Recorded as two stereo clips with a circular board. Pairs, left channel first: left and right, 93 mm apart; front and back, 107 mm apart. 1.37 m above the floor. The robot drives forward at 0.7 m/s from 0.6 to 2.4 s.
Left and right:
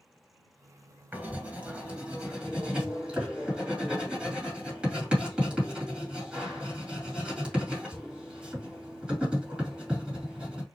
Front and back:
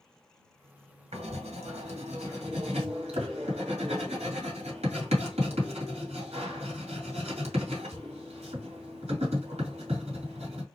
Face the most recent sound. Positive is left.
turn(degrees=-170)